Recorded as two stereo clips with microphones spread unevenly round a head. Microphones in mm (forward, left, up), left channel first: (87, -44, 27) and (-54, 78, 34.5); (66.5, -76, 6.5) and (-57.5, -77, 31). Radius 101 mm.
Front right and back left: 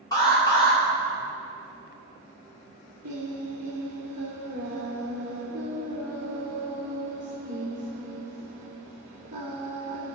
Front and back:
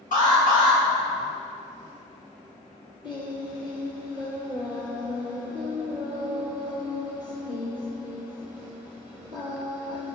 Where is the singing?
90° left, 2.5 m.